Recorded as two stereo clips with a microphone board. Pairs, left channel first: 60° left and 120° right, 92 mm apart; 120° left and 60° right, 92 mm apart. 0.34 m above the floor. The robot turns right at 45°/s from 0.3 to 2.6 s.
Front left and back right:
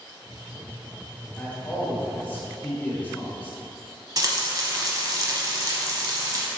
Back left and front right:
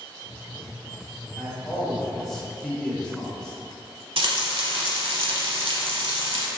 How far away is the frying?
About 0.6 m.